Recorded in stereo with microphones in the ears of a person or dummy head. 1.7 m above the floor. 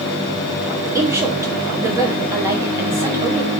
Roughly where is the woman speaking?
Centre.